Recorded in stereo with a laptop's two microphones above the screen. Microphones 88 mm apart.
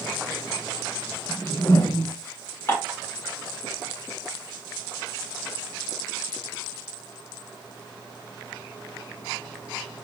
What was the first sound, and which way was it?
A whoosh, 30° left (ahead or behind).